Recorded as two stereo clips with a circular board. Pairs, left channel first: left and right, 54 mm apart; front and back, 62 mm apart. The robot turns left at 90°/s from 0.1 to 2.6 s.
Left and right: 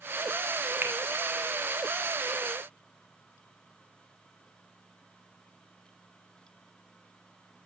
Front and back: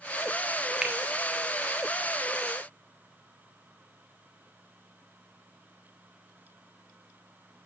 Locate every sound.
0.8 s a finger snap: 110° right, 1.3 m; by 0.9 s 120° right, 1.3 m